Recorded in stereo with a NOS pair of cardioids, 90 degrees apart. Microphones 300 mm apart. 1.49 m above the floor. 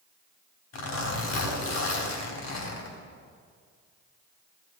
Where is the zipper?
60° left, 4 m.